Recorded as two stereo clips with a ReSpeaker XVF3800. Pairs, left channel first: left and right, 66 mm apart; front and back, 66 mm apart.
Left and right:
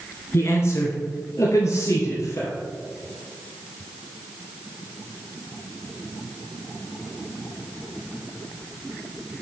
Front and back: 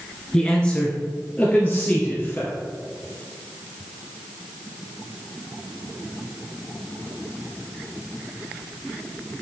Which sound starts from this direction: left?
A man speaking, at 0.3 s.